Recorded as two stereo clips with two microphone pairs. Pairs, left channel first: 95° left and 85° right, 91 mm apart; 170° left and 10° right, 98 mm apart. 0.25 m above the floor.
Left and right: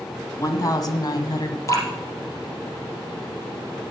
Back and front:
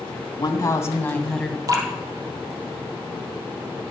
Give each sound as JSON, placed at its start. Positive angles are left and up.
{"t": 0.4, "sound": "a woman speaking", "azimuth_deg": 135, "distance_m": 1.9}
{"t": 1.7, "sound": "dripping", "azimuth_deg": 40, "distance_m": 3.0}